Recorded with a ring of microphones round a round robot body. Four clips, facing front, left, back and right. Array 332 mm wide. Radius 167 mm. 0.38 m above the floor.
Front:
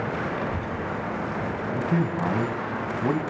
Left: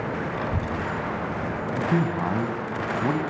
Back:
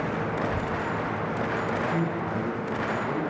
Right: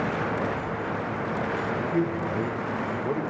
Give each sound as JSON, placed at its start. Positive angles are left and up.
{"t": 0.3, "sound": "a child speaking", "azimuth_deg": 100, "distance_m": 1.6}
{"t": 1.7, "sound": "a man speaking", "azimuth_deg": 45, "distance_m": 3.5}